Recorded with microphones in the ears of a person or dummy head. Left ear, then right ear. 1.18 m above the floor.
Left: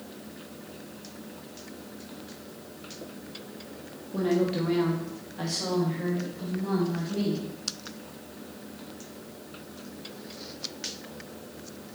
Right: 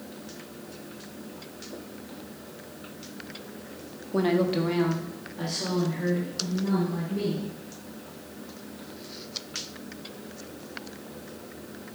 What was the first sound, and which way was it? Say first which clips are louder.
A woman speaking: right 2 dB; 45° right (ahead or behind).